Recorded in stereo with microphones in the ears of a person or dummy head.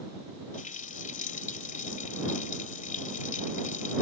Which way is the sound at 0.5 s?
40° left (ahead or behind).